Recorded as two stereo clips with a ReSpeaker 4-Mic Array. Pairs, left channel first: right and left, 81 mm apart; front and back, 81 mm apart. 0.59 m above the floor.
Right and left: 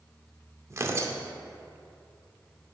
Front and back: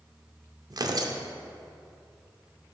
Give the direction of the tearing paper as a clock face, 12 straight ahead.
7 o'clock.